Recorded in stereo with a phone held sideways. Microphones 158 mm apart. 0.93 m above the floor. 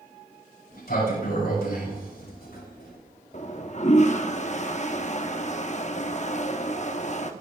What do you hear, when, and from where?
0.7 s a sliding door: 80° left, 6.5 m
3.3 s a toilet flushing: 50° left (ahead or behind), 0.9 m